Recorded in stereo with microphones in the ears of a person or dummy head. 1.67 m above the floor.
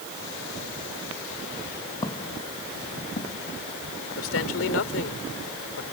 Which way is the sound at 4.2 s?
85° left.